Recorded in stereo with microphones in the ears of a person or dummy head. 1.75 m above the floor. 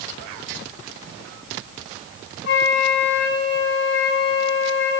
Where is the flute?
65° left (ahead or behind), 5 m.